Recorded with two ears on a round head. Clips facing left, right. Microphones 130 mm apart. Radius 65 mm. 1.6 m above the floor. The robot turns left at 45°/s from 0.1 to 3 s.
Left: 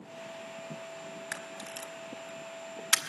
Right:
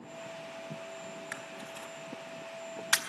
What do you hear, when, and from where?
1.3 s a camera shutter: 45° left (ahead or behind), 1.1 m; by 3.0 s 25° left (ahead or behind), 1.1 m